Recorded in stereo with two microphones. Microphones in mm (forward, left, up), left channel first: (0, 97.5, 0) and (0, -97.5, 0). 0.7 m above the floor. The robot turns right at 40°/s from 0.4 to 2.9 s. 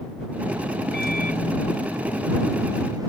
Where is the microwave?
120° left; by 3.1 s 160° right.